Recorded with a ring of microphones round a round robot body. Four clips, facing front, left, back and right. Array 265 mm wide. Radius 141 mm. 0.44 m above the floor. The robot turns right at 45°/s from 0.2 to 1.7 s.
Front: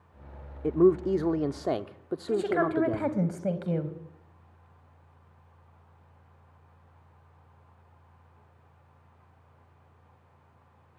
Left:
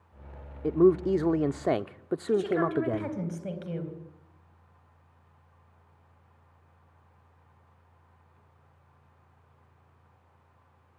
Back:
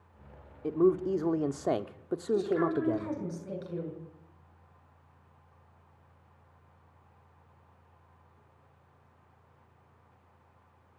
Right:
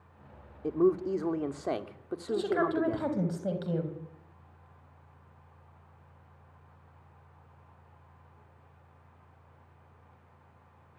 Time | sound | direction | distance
0.6 | a man speaking | 40° left | 1.0 m
2.3 | a woman speaking | 15° right | 3.5 m